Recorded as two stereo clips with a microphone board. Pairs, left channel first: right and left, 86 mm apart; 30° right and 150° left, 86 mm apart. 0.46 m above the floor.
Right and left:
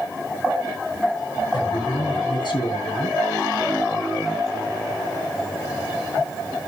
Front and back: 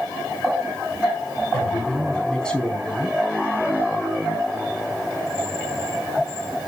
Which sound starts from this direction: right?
A man speaking, at 1.5 s.